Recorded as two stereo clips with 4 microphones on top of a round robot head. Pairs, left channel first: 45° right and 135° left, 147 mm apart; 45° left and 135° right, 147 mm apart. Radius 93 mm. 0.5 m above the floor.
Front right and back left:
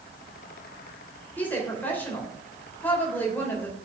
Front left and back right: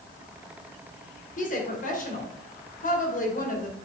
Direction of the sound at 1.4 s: 30° left.